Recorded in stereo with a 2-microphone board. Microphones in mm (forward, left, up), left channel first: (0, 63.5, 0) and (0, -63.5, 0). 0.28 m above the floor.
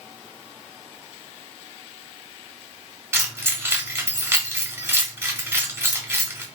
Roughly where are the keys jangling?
Centre.